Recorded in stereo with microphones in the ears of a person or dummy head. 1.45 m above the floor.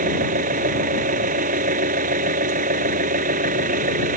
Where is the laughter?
No laughter in this recording.